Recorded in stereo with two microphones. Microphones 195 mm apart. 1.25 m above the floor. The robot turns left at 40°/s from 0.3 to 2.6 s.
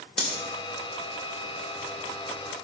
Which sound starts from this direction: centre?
Cutlery clinking, at 0.2 s.